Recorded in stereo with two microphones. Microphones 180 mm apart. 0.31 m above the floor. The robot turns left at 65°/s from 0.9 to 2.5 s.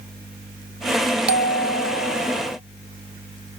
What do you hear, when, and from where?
1.3 s a bell: 95° right, 0.6 m; by 2.6 s 170° right, 0.6 m